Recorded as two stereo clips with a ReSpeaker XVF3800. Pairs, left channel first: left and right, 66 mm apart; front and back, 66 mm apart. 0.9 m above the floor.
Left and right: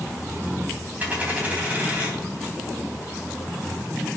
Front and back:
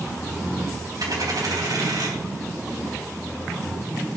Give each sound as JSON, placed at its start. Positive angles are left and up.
{"t": 1.0, "sound": "a dropped coin", "azimuth_deg": -155, "distance_m": 3.0}